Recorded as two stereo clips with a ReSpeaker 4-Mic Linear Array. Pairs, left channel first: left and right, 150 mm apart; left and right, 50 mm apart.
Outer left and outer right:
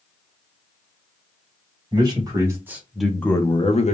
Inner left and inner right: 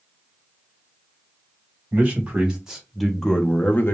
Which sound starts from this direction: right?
A man speaking, at 1.9 s.